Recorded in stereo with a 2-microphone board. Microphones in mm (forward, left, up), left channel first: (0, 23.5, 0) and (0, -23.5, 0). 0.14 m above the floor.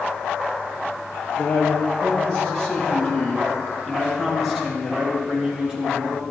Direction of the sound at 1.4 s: 30° left (ahead or behind).